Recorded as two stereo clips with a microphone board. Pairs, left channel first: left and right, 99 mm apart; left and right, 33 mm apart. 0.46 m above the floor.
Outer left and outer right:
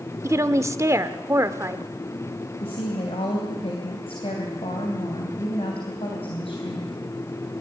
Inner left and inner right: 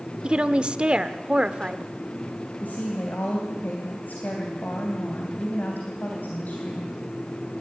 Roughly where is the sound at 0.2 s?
Right.